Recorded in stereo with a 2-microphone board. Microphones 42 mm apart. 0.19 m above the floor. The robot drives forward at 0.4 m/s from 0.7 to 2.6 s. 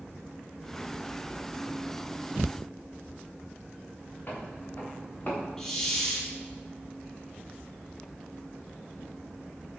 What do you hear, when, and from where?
4.3 s footsteps: 40° left (ahead or behind), 6.5 m; by 5.5 s 35° left (ahead or behind), 6 m
5.6 s a hiss: 10° left (ahead or behind), 5.5 m